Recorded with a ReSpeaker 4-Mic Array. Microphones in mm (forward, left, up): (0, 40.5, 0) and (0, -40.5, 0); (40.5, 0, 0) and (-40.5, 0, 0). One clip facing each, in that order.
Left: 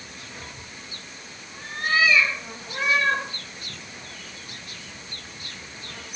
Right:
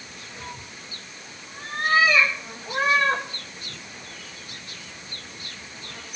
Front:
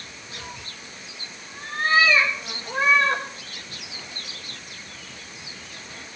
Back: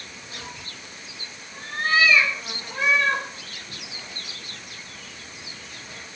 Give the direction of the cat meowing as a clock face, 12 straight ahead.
3 o'clock.